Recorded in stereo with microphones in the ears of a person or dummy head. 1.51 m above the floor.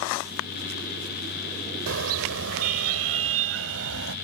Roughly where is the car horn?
Right.